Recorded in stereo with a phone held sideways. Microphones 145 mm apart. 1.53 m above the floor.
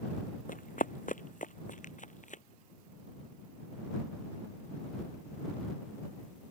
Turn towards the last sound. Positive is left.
turn(degrees=60)  # may be behind; listen again after turning